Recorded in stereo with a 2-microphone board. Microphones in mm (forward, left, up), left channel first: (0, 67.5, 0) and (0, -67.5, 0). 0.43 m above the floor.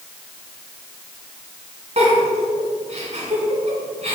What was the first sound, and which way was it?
A giggle, 55° right (ahead or behind).